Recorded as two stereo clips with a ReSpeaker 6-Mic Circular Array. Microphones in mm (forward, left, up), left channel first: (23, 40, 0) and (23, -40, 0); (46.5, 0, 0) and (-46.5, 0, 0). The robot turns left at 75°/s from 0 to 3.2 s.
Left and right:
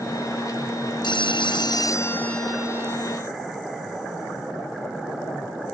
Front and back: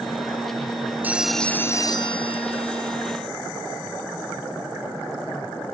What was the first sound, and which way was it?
A phone ringing, 110° left.